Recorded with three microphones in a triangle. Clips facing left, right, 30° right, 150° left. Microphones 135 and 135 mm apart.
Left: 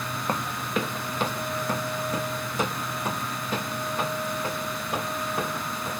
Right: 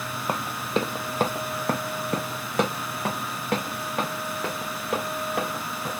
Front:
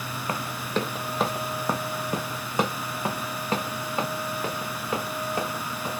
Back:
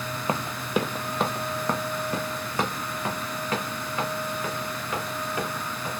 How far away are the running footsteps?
About 0.7 m.